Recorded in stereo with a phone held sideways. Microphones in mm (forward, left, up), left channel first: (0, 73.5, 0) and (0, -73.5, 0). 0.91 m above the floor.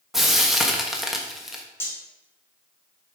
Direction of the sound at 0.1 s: Centre (ahead or behind).